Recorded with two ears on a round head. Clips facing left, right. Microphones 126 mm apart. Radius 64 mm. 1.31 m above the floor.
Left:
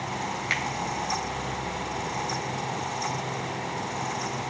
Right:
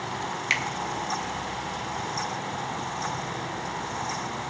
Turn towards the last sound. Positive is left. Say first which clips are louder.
# even
turn(degrees=-25)  # may be behind; listen again after turning